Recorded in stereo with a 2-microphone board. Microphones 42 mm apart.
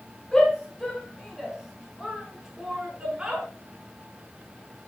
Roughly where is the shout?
Centre.